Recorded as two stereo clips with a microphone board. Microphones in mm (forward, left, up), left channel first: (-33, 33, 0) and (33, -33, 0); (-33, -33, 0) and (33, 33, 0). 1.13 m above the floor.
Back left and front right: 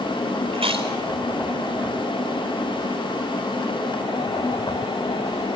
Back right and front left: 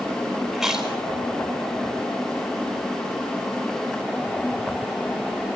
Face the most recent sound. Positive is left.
turn(degrees=-40)